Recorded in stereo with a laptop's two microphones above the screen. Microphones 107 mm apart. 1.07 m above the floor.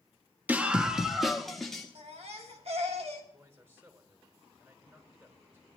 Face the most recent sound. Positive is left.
turn(degrees=-25)  # may be behind; listen again after turning